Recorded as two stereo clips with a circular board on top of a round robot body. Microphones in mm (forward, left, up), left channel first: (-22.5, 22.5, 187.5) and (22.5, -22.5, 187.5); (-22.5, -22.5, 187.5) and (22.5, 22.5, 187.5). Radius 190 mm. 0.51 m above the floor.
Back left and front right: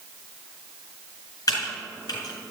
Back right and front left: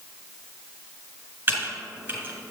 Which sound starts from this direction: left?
Typing on a keyboard, at 1.5 s.